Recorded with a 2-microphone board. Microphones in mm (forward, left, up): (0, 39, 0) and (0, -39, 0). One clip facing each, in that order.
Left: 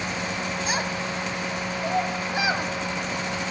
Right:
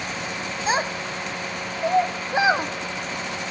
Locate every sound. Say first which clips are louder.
0.7 s a child speaking: right 7 dB; 30° right (ahead or behind), 0.7 m